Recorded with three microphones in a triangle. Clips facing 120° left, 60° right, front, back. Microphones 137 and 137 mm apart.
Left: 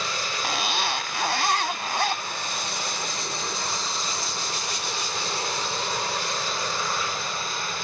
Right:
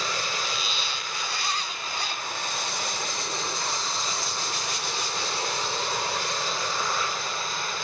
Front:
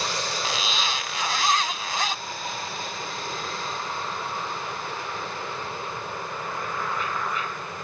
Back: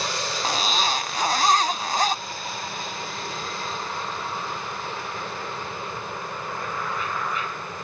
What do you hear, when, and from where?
0.4 s a zipper: 135° left